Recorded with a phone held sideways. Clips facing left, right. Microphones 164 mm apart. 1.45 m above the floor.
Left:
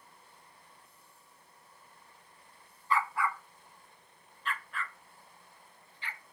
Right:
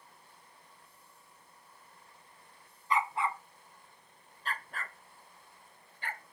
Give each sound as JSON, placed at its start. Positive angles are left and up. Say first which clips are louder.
{"t": 2.9, "sound": "a dog barking", "louder": "even", "side_deg": -20}